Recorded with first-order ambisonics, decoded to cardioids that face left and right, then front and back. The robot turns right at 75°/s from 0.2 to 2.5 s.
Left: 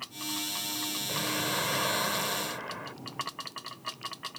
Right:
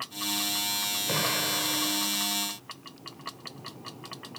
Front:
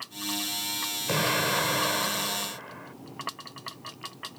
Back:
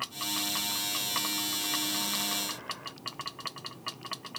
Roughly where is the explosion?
Ahead right.